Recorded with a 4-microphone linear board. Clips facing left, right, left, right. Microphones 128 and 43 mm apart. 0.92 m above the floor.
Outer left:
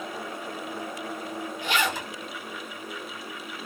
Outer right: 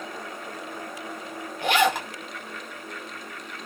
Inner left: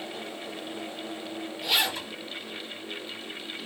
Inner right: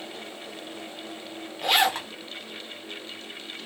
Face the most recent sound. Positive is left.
turn(degrees=-60)  # may be behind; listen again after turning